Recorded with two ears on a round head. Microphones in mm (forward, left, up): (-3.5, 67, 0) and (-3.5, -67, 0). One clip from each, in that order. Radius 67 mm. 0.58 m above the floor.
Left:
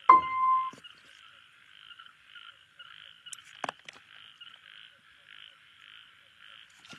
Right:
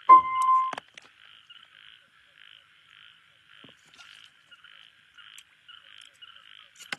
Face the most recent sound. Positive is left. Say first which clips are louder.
# right 4 dB
turn(degrees=10)  # may be behind; listen again after turning